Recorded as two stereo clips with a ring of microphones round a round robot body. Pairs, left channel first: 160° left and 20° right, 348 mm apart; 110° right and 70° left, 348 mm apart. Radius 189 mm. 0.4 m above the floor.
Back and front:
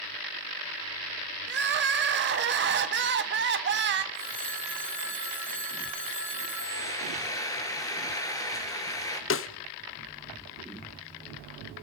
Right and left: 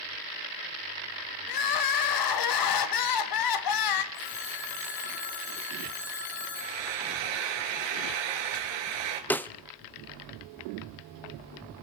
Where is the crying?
85° right, 1.3 m.